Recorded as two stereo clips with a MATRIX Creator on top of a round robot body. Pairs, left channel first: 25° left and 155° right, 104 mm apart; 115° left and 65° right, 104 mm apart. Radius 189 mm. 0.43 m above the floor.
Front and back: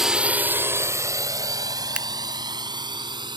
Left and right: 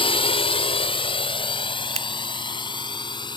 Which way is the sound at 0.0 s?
115° left.